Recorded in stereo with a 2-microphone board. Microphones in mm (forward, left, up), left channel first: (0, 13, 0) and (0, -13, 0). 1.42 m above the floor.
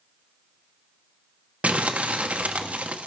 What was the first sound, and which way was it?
Crumpling, 65° right (ahead or behind).